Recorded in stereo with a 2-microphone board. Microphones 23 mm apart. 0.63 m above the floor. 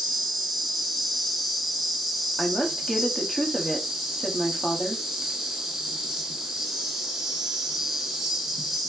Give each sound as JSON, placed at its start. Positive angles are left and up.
{"t": 0.0, "sound": "an insect", "side_deg": -10, "distance_m": 0.9}
{"t": 2.4, "sound": "a woman speaking", "side_deg": 20, "distance_m": 0.7}